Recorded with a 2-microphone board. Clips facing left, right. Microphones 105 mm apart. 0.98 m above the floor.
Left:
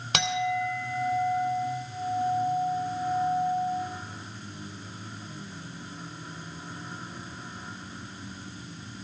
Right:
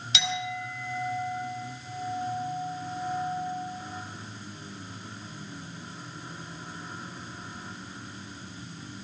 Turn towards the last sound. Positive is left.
turn(degrees=55)  # may be behind; listen again after turning